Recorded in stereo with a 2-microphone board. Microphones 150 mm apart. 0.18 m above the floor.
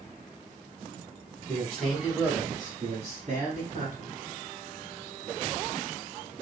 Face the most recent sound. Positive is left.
turn(degrees=-60)  # may be behind; listen again after turning